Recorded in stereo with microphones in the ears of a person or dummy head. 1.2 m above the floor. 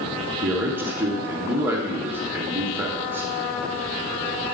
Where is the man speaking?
15° right (ahead or behind), 0.8 m.